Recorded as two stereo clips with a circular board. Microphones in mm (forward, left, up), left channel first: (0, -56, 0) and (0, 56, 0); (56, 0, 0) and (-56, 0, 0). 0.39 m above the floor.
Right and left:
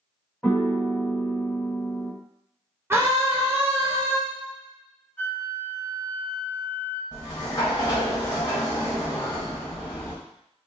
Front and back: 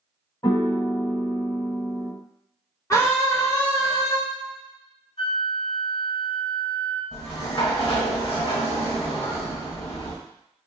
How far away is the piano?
About 1.2 m.